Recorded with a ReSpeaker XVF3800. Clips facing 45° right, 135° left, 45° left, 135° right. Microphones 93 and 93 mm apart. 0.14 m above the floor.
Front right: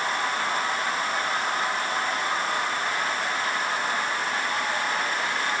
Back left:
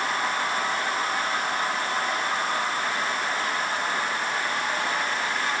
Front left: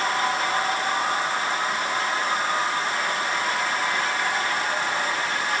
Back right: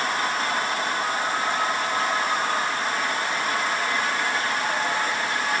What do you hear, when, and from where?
Only background noise.